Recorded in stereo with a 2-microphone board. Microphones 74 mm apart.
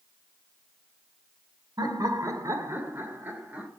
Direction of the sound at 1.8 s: 60° right (ahead or behind).